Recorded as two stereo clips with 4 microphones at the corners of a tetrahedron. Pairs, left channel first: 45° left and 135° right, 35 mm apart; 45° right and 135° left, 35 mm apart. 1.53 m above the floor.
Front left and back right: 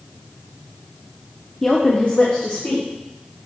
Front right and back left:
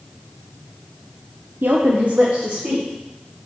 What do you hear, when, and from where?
1.6 s a woman speaking: 130° left, 0.6 m; by 2.9 s 70° left, 1.6 m